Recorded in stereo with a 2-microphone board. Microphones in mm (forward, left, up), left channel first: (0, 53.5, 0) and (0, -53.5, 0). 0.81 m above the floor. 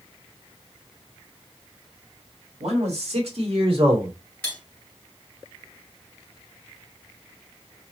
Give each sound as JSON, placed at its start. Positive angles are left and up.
{"t": 2.6, "sound": "a man speaking", "side_deg": -75, "distance_m": 3.0}
{"t": 4.4, "sound": "cutlery clinking", "side_deg": 15, "distance_m": 2.0}